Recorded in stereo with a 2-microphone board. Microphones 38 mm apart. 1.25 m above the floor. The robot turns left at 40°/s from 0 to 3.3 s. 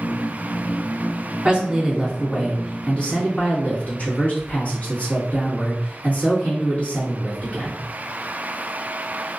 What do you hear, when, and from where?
1.4 s a man speaking: 150° right, 1.8 m; by 7.8 s 135° left, 1.8 m